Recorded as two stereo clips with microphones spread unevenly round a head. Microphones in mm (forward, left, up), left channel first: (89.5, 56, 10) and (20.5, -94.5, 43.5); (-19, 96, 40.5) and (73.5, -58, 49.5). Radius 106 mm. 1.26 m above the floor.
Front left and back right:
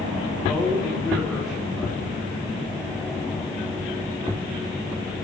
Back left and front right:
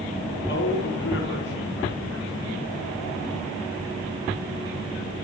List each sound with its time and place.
0.5 s a man speaking: 155° left, 3.5 m